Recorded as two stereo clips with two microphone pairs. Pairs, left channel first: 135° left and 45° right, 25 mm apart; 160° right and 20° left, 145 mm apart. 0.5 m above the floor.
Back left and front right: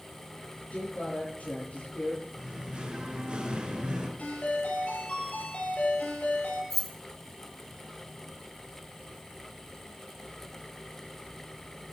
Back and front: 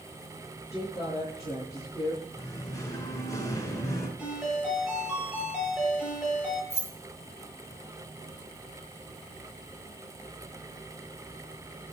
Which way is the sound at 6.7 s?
55° left.